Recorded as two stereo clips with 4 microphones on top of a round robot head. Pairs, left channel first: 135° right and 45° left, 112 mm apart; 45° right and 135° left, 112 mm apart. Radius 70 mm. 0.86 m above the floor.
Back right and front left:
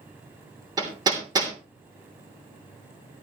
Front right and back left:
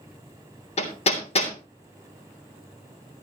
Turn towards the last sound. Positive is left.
turn(degrees=-10)